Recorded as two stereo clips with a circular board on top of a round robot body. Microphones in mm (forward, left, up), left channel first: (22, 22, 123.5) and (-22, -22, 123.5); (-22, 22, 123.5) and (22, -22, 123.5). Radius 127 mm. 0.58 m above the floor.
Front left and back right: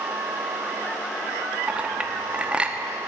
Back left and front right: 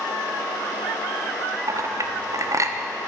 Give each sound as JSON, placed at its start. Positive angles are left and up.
{"t": 1.7, "sound": "a clink", "azimuth_deg": -65, "distance_m": 0.9}